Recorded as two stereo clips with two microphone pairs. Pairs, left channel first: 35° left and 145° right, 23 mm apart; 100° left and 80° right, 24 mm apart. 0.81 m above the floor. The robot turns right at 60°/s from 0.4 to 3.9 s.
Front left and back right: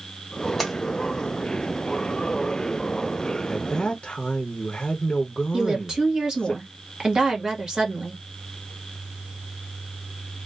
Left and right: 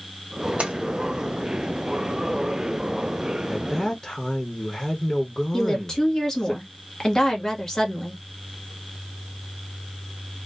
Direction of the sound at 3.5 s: 25° left.